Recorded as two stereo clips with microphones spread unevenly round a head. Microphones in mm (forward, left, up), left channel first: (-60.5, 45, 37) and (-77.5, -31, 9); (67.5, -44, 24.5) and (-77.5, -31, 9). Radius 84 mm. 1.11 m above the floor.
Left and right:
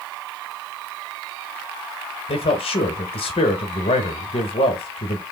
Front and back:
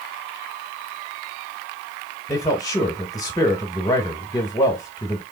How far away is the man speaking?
About 1.0 m.